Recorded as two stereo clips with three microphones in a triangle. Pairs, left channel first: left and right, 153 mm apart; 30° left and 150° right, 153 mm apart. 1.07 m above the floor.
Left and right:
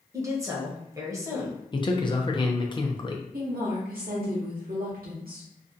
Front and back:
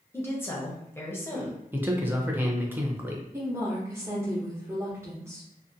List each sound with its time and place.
0.1 s a woman speaking: 35° right, 0.8 m
1.7 s a man speaking: 140° left, 0.5 m
3.3 s a woman speaking: 75° right, 0.7 m